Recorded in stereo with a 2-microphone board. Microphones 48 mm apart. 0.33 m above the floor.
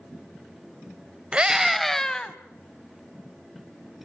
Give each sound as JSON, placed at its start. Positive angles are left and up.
{"t": 1.3, "sound": "a scream", "side_deg": -25, "distance_m": 1.2}